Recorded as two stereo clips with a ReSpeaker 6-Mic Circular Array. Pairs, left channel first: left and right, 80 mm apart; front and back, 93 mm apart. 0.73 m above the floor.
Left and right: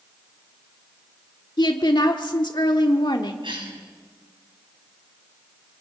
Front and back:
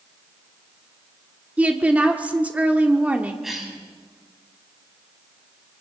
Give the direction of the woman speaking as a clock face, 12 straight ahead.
9 o'clock.